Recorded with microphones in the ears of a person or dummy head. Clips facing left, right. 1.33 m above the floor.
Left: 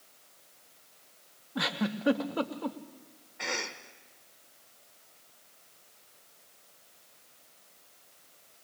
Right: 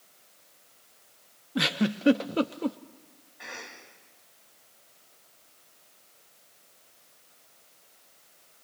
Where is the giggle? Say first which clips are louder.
Right 5 dB; 30° right (ahead or behind), 0.5 m.